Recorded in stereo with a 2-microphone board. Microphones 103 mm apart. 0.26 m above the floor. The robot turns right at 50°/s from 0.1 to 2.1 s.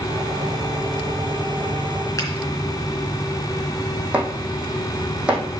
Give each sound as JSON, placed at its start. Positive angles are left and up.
{"t": 2.2, "sound": "a finger snap", "side_deg": 30, "distance_m": 3.0}
{"t": 4.1, "sound": "chopping", "side_deg": -10, "distance_m": 2.5}